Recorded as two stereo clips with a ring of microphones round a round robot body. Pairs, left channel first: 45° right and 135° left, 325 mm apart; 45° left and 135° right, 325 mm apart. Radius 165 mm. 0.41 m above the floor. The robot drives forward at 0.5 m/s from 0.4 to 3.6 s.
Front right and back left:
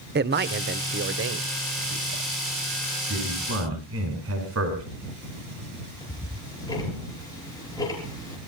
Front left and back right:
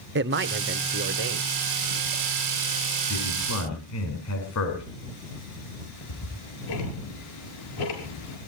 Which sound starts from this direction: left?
A man speaking, at 3.1 s.